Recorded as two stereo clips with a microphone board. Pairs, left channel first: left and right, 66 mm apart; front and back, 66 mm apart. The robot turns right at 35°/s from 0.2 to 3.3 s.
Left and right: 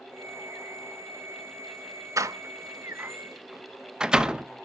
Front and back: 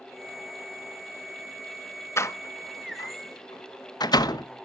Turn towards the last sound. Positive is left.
turn(degrees=-10)